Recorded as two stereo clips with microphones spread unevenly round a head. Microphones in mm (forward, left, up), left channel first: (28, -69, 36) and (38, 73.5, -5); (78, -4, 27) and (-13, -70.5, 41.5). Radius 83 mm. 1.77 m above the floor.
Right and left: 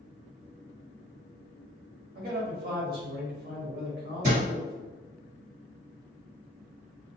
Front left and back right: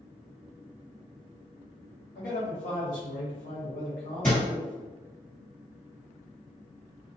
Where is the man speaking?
65° left, 0.9 m.